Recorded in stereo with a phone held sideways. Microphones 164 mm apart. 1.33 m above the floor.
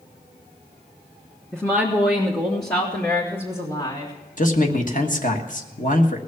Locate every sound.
1.5 s a woman speaking: 5° left (ahead or behind), 1.1 m; by 4.1 s 30° left (ahead or behind), 3 m
4.4 s a man speaking: 50° left (ahead or behind), 1.4 m